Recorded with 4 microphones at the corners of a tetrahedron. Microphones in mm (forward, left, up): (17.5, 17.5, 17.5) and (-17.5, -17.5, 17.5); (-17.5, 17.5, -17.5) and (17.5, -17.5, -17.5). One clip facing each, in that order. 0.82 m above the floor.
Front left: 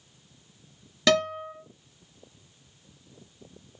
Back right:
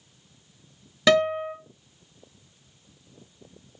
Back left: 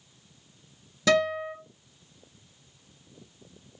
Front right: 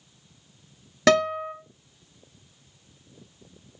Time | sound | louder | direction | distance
1.1 | a guitar | back right 4 dB, front right 3 dB | 55° right | 0.9 m